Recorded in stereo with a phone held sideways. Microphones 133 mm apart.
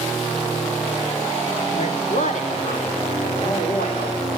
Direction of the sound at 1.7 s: 60° left (ahead or behind).